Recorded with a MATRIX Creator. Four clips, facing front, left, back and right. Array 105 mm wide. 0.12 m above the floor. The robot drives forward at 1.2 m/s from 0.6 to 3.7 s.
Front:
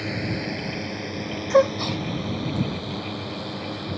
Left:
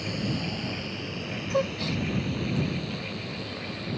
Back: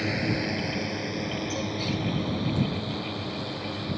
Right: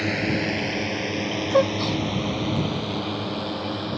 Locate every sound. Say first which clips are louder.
0.0 s a drone: right 7 dB, back 1 dB; 100° right; by 4.0 s 85° right
1.5 s a gasp: right 7 dB, front 11 dB; 20° right; by 2.0 s 40° right